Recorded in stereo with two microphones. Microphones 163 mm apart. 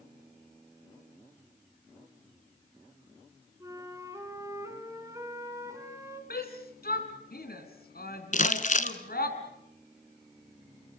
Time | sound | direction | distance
3.6 | a flute | 20° right (ahead or behind) | 3 m
6.3 | a shout | 70° left (ahead or behind) | 3.5 m
8.3 | crumpling | 50° left (ahead or behind) | 1.3 m